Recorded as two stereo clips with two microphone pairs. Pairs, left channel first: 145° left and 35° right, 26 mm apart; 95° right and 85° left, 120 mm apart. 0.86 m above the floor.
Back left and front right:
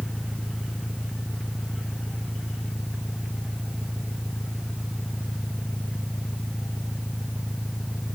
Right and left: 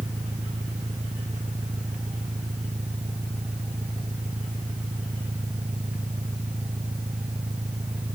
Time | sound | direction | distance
0.0 | an engine running | 95° left | ?